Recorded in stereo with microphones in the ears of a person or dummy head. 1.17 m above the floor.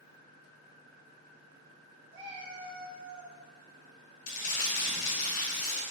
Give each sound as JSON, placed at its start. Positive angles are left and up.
{"t": 2.1, "sound": "a cat meowing", "side_deg": -35, "distance_m": 0.7}
{"t": 4.3, "sound": "crumpling", "side_deg": 50, "distance_m": 0.8}